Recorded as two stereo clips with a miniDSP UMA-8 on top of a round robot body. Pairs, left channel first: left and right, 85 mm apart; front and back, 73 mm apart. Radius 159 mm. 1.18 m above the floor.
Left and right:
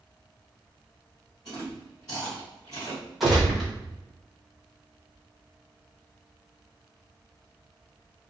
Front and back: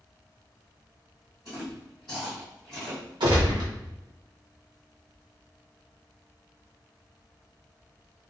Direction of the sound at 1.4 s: 45° left.